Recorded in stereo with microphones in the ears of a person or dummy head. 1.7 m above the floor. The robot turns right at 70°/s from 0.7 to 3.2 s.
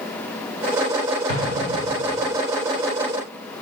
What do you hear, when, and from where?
1.3 s an explosion: 95° left, 9.5 m; by 2.2 s 160° left, 9.5 m